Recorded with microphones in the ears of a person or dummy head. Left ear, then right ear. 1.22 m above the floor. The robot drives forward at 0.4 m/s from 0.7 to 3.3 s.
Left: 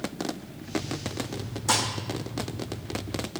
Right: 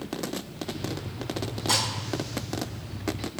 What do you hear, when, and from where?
1.7 s dishes clattering: 60° left (ahead or behind), 2.5 m; by 1.9 s 55° left (ahead or behind), 2.5 m